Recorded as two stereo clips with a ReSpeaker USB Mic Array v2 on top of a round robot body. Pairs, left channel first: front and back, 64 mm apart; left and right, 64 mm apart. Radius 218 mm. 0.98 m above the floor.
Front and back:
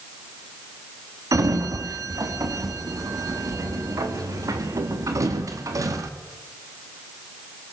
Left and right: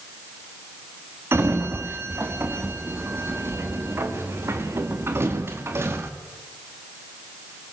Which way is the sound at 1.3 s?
140° right.